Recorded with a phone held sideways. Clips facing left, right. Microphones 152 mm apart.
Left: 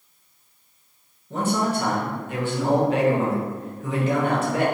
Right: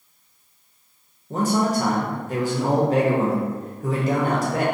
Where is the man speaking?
40° right (ahead or behind), 0.7 m.